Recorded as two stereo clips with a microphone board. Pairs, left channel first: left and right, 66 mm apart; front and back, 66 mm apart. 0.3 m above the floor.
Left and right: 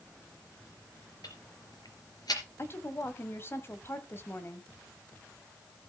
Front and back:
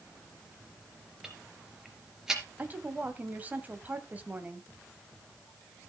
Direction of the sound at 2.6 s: 125° left.